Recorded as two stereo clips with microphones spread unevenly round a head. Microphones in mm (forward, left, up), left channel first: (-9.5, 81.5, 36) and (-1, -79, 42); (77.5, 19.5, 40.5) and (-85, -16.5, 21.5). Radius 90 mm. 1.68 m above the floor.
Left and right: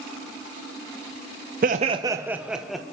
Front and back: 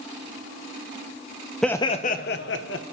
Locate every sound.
1.6 s laughter: 70° right, 0.6 m; by 2.8 s 5° left, 1.4 m